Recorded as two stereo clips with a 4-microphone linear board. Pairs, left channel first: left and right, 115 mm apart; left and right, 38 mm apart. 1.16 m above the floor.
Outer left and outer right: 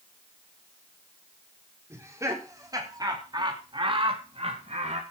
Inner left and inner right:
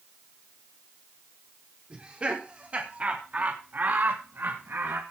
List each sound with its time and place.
1.9 s laughter: 25° right (ahead or behind), 4 m; by 5.0 s 75° right (ahead or behind), 2.0 m